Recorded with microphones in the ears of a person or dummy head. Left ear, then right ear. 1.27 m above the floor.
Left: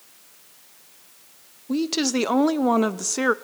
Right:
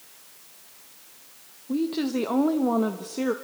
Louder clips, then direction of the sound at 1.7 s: Left 3 dB; 80° left.